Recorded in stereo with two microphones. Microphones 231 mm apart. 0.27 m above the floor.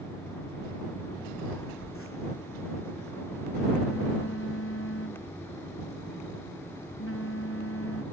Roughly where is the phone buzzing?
Left.